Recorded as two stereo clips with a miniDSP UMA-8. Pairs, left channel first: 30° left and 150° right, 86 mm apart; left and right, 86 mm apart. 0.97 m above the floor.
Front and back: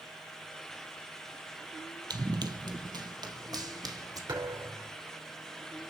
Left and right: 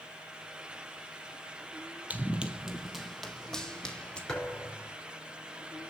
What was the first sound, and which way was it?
Running footsteps, 155° right.